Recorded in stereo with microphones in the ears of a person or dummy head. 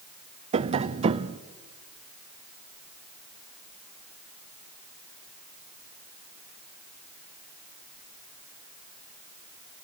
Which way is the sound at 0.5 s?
35° right (ahead or behind).